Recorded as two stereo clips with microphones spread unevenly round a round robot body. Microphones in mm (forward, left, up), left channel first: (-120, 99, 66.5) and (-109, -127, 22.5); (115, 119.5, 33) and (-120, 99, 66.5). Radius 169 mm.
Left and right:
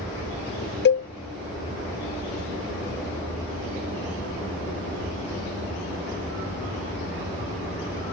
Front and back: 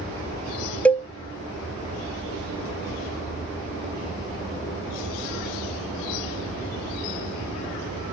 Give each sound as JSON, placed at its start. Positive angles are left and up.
{"t": 0.8, "sound": "a cowbell", "azimuth_deg": 75, "distance_m": 0.5}